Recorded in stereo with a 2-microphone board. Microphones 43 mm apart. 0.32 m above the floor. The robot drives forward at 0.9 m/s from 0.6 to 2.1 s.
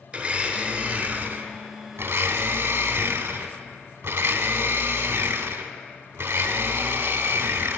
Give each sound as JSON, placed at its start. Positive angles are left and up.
{"t": 0.1, "sound": "a blender", "side_deg": -25, "distance_m": 1.2}